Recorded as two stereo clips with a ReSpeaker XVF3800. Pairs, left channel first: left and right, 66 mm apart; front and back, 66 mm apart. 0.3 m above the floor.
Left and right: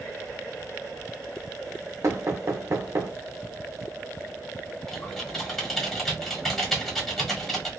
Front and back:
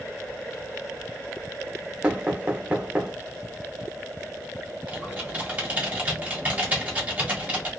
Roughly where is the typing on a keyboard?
Behind.